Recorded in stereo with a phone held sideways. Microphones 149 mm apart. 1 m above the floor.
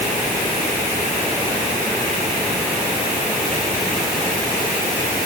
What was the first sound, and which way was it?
Only background noise.